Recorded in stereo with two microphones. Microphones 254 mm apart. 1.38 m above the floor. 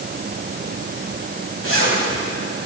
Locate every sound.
1.6 s a zipper: 60° right (ahead or behind), 7 m